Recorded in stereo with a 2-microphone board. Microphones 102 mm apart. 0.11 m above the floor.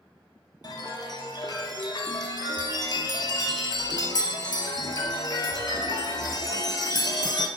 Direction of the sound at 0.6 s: 45° left (ahead or behind).